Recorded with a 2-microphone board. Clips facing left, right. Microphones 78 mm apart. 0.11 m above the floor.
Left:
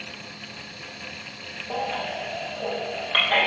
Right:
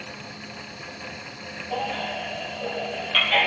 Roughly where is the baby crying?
Left.